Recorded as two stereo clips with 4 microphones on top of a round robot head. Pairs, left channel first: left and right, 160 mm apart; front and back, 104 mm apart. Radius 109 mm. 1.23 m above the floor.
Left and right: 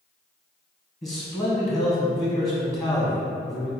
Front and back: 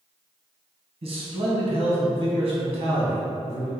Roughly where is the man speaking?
Behind.